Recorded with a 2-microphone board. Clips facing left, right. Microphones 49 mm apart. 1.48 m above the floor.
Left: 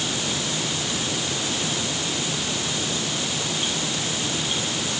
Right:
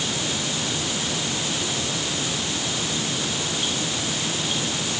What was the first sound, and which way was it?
Only background noise.